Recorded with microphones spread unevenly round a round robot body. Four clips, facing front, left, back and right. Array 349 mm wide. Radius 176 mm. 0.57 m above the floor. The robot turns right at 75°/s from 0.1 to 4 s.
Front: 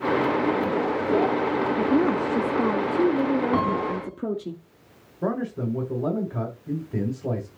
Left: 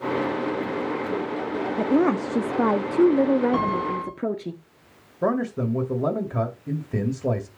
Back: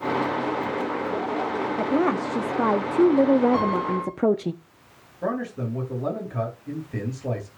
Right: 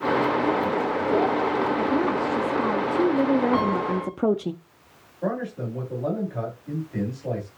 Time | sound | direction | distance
1.8 | a woman speaking | 50° left | 0.7 m
3.5 | a piano | 5° left | 3.5 m
5.2 | a man speaking | 80° left | 2.5 m